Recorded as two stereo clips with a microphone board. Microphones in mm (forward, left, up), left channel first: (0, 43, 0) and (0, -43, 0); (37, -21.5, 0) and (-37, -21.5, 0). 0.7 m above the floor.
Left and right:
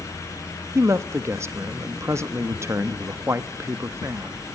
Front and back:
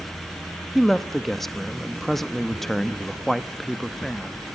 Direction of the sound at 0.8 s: 85° right.